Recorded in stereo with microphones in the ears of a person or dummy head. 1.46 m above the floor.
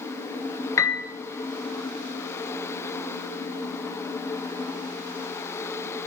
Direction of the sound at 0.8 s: 20° left (ahead or behind).